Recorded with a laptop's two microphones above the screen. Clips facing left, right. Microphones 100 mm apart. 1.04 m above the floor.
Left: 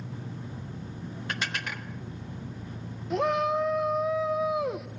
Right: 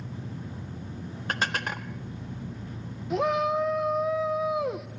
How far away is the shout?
About 0.7 m.